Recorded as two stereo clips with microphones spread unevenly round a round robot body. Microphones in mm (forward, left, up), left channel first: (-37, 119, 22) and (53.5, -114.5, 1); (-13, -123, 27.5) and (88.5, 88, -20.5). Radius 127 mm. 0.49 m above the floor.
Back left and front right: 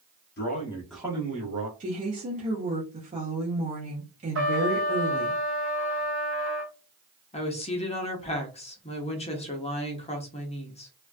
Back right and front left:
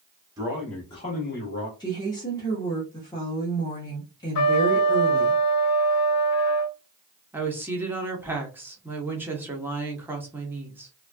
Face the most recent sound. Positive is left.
turn(degrees=85)